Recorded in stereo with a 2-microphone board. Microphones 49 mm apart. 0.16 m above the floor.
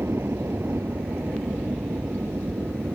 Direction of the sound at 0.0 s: 60° right (ahead or behind).